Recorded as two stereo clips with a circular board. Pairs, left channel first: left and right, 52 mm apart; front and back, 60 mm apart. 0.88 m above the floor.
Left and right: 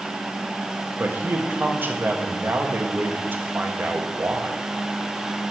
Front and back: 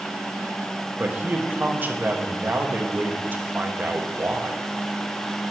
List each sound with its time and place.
1.0 s a man speaking: 130° right, 0.8 m